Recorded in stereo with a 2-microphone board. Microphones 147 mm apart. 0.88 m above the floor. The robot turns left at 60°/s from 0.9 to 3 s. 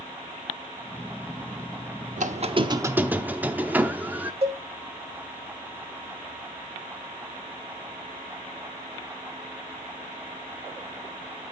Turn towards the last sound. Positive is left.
turn(degrees=-40)  # may be behind; listen again after turning